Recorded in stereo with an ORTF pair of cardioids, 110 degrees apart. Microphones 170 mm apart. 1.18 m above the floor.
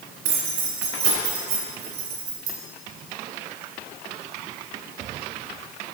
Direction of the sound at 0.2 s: 65° right.